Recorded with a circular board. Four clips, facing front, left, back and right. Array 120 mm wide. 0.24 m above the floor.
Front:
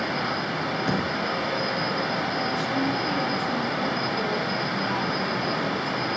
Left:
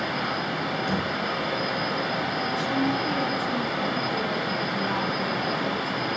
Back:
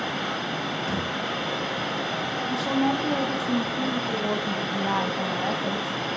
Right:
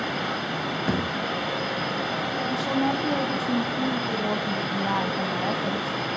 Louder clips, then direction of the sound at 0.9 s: Right 3 dB, front 5 dB; 55° right.